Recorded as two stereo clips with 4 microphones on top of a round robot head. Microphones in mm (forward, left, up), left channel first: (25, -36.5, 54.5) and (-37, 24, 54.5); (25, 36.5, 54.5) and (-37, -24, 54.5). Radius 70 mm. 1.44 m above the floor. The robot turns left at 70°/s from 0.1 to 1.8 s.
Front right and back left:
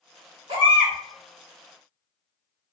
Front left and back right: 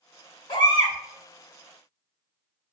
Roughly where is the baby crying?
Left.